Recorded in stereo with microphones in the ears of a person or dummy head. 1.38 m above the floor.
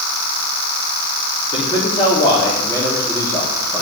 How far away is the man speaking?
About 4 m.